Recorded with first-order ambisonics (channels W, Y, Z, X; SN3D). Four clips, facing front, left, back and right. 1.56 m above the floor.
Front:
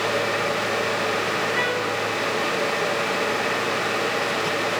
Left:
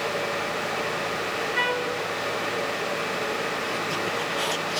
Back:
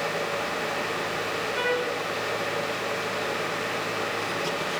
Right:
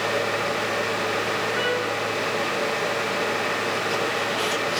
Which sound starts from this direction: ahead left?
A trumpet, at 1.6 s.